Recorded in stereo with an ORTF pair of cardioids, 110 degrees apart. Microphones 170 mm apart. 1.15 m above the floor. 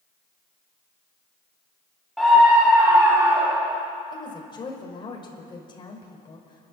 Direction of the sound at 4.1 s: 30° left.